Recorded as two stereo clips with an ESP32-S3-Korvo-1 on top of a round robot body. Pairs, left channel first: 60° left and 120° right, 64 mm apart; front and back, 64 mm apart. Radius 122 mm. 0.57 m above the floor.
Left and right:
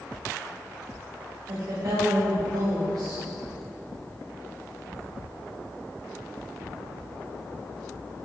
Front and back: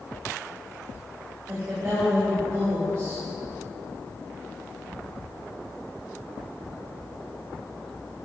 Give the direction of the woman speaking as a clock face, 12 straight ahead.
5 o'clock.